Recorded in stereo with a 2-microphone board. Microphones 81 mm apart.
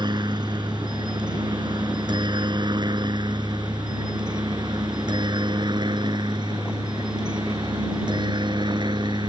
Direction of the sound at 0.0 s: 65° right (ahead or behind).